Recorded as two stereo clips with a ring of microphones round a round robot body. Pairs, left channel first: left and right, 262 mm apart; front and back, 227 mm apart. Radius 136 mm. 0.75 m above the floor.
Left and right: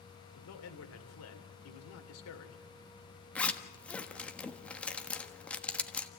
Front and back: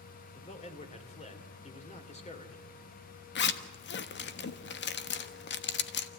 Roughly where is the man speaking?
Ahead left.